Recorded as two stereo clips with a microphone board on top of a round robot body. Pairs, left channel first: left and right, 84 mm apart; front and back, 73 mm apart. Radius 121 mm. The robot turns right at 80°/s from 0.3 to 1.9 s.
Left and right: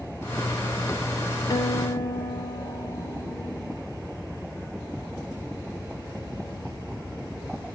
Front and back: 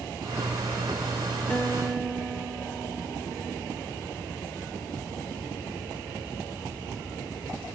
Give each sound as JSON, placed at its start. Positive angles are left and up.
{"t": 1.5, "sound": "a guitar", "azimuth_deg": 65, "distance_m": 1.5}